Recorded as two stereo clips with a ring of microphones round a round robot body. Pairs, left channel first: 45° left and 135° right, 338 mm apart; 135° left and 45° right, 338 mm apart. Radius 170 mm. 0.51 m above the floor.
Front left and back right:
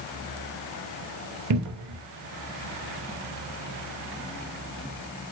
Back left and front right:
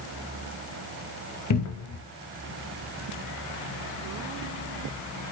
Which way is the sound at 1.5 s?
Straight behind.